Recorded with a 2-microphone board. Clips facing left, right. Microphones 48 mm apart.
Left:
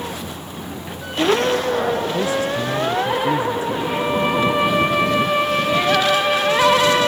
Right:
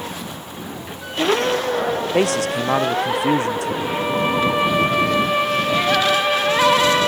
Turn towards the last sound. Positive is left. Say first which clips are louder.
# left 1 dB
turn(degrees=0)  # may be behind; listen again after turning